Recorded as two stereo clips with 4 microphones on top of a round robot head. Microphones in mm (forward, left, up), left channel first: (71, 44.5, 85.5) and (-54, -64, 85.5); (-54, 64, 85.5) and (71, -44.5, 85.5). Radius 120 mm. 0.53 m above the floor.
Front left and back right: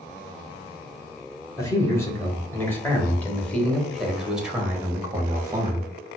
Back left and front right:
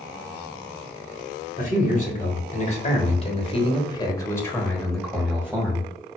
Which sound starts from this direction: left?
A man speaking, at 1.6 s.